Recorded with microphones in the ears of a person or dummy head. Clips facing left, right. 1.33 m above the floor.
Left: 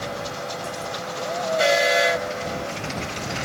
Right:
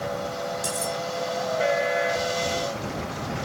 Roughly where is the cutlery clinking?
Right.